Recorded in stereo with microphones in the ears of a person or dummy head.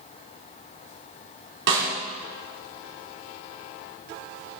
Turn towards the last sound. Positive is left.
turn(degrees=-80)